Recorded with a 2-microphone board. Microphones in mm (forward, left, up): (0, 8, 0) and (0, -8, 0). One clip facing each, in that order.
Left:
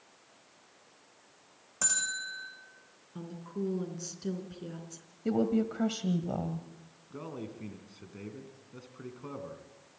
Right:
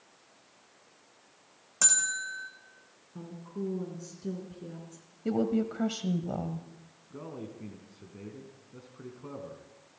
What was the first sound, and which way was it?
A bell, 35° right (ahead or behind).